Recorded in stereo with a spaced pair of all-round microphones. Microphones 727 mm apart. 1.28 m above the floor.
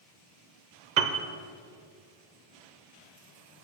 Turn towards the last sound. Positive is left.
turn(degrees=-70)  # may be behind; listen again after turning